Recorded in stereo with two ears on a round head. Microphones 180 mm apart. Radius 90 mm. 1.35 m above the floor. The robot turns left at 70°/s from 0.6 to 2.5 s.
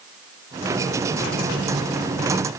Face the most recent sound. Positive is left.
No sound to turn to.